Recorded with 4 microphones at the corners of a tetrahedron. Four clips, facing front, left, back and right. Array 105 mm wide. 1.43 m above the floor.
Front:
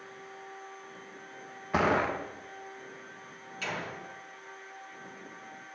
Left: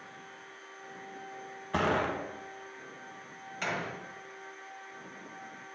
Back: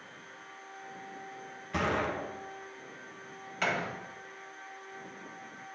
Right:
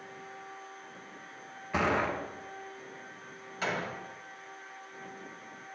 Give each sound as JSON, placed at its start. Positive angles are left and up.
{"t": 1.7, "sound": "a gunshot", "azimuth_deg": 20, "distance_m": 0.9}
{"t": 3.6, "sound": "a door slam", "azimuth_deg": -165, "distance_m": 1.5}